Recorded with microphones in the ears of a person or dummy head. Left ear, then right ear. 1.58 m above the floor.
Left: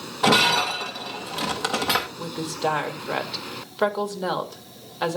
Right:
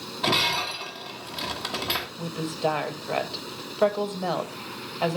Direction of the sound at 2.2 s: 5° left (ahead or behind).